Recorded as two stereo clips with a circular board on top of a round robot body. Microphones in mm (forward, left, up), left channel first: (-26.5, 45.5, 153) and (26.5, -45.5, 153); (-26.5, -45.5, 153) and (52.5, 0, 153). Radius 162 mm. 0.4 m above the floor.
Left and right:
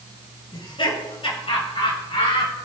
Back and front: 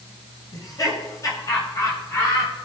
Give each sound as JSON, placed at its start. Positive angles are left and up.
{"t": 0.5, "sound": "laughter", "azimuth_deg": 160, "distance_m": 7.0}